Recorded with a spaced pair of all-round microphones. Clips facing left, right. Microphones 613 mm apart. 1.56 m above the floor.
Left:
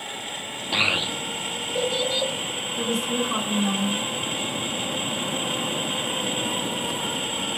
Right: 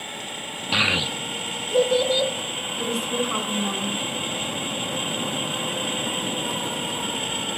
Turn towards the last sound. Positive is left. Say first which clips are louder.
# left 1 dB
turn(degrees=50)  # may be behind; listen again after turning